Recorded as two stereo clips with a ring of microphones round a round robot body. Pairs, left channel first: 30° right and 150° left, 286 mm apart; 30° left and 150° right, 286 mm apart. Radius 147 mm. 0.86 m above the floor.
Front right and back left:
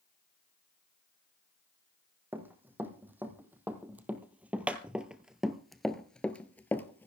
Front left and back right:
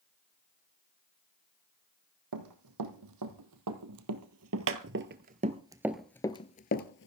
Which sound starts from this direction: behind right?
Running footsteps, at 2.3 s.